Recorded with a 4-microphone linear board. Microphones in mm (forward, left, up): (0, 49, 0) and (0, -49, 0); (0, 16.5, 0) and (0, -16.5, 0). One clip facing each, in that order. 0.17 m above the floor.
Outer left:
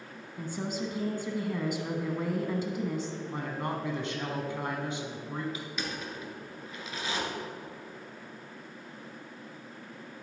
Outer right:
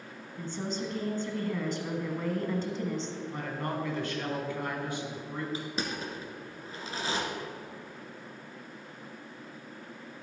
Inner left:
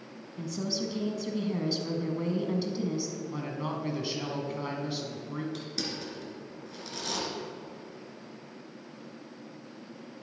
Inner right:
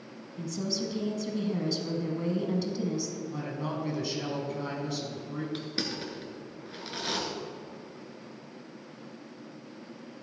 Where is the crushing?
35° right (ahead or behind), 1.5 m.